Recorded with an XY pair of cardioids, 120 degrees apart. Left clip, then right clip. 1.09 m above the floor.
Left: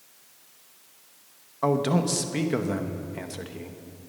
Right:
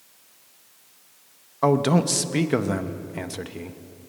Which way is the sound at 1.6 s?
25° right.